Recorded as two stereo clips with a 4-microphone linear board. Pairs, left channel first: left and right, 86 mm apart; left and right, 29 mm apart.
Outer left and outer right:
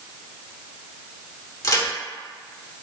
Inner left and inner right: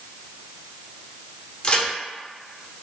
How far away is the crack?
About 1.0 m.